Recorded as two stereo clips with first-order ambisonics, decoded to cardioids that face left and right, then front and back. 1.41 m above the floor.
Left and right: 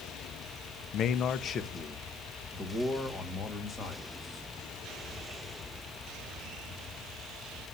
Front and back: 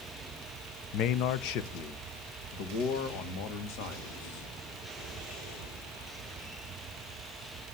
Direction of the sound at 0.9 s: 40° left.